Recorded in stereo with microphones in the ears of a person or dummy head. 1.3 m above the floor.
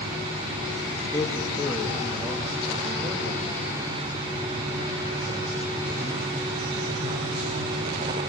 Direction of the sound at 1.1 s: 10° left (ahead or behind).